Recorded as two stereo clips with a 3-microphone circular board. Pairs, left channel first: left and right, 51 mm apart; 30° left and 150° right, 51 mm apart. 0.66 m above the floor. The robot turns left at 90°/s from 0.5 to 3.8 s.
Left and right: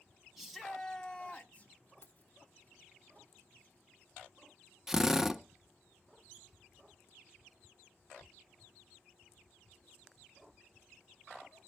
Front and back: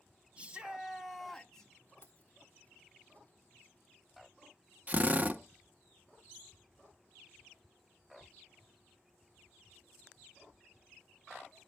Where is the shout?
170° right, 0.6 m; by 1.7 s 80° left, 0.6 m.